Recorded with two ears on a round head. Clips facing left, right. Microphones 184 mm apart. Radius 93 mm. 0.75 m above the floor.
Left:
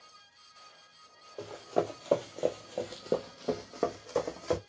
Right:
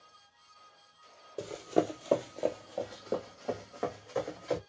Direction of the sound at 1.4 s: 30° right (ahead or behind).